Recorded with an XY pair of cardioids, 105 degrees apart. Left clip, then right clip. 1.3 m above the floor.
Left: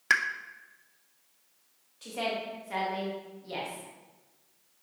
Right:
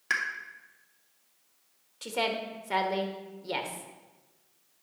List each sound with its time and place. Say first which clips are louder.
0.1 s a pop: left 4 dB; 35° left, 0.8 m
2.0 s a woman speaking: right 2 dB; 55° right, 1.5 m